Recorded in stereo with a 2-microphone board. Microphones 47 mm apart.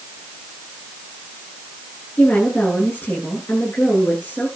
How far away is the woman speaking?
About 9.5 m.